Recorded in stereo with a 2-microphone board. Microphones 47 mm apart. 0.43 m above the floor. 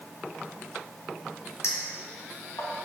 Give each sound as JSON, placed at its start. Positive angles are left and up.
{"t": 1.6, "sound": "a clink", "side_deg": 75, "distance_m": 1.6}